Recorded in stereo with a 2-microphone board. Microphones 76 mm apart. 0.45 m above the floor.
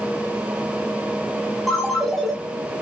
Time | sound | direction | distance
1.7 | a ringtone | 5° left (ahead or behind) | 4.5 m